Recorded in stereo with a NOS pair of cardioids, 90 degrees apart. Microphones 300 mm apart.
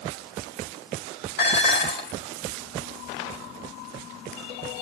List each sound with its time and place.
1.4 s dishes clattering: 35° left, 4 m